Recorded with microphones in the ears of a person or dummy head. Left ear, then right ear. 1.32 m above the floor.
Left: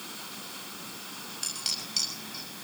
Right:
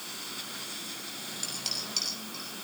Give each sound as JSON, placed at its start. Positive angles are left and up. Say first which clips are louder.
{"t": 1.4, "sound": "dishes clattering", "louder": "left 2 dB", "side_deg": 10, "distance_m": 6.0}